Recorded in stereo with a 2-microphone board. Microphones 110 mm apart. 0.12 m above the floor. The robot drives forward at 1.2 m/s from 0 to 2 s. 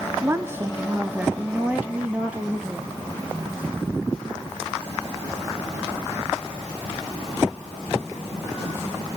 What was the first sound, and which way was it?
A woman speaking, 20° right (ahead or behind).